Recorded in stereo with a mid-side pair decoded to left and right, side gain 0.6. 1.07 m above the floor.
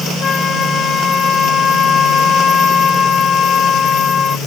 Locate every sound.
0.2 s a flute: 35° left